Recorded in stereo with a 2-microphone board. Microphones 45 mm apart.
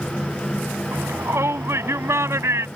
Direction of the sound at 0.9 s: 80° right.